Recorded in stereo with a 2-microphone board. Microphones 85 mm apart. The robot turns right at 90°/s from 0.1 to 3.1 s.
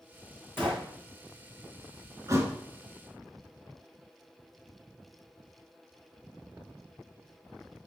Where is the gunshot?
25° left (ahead or behind), 2.5 m; by 0.9 s 5° right (ahead or behind), 2.5 m.